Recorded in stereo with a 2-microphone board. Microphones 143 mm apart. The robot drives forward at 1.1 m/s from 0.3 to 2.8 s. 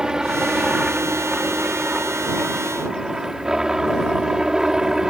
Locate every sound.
0.0 s a helicopter: 5° right (ahead or behind)